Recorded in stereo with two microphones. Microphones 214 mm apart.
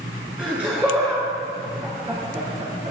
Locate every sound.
0.4 s laughter: 5° right (ahead or behind), 3 m; by 2.9 s 35° right (ahead or behind), 3 m